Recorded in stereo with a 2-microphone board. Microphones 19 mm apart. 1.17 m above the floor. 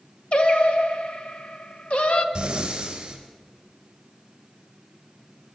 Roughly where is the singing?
Left.